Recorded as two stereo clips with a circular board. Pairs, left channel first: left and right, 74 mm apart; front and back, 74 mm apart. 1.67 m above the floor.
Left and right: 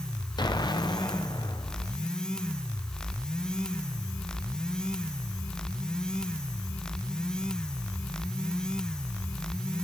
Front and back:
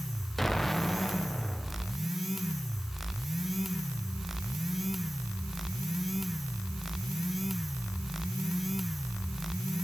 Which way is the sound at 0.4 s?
85° left.